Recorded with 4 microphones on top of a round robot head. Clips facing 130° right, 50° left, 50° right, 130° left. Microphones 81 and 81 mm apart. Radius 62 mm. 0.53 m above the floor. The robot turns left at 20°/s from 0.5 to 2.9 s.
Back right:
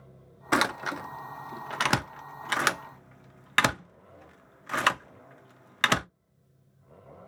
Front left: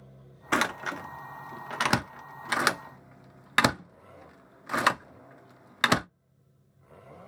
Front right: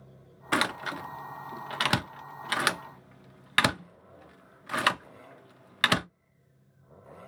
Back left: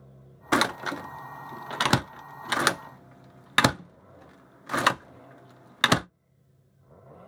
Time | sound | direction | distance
0.5 | a door slam | 160° left | 0.5 m